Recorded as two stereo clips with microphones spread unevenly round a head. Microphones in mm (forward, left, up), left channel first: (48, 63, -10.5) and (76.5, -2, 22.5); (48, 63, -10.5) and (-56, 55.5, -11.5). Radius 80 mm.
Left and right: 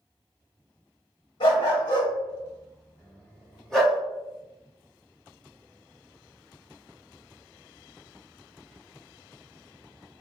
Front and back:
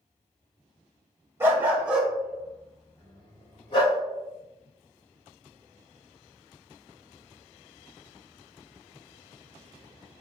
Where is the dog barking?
125° left, 1.1 m; by 4.0 s straight ahead, 1.3 m.